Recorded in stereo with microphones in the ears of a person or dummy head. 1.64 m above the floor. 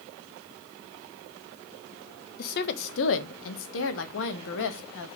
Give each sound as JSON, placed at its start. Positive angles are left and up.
{"t": 2.4, "sound": "a woman speaking", "side_deg": 50, "distance_m": 1.0}